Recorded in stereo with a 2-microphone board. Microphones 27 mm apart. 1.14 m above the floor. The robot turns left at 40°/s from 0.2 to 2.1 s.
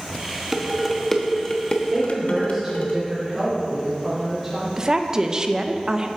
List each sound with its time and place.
0.5 s dishes clattering: 15° right (ahead or behind), 1.2 m; by 2.9 s 50° left (ahead or behind), 1.2 m
1.9 s a woman speaking: 20° right (ahead or behind), 4 m; by 4.7 s 10° right (ahead or behind), 4 m
4.8 s a woman speaking: 30° right (ahead or behind), 0.8 m